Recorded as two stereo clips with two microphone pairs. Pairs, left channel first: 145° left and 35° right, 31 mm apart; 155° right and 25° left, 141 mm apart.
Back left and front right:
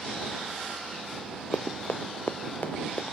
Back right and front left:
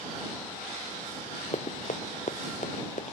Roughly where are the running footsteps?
Behind.